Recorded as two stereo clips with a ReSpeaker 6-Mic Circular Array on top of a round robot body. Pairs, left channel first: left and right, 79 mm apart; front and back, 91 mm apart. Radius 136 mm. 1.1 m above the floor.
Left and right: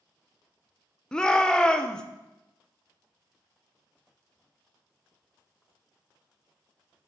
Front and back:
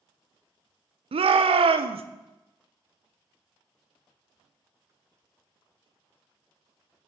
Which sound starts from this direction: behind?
A shout, at 1.1 s.